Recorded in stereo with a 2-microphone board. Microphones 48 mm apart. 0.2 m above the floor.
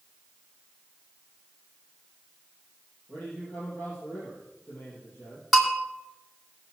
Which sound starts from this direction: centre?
A bell, at 5.5 s.